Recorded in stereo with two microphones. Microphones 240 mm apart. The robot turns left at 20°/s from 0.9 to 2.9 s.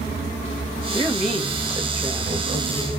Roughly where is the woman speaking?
Ahead.